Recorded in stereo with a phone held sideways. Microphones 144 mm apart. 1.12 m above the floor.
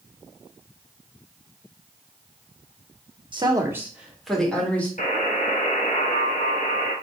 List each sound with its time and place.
3.3 s a woman speaking: 35° right (ahead or behind), 1.0 m; by 4.9 s 10° left (ahead or behind), 2 m
5.0 s a buzzer: 65° left (ahead or behind), 1.1 m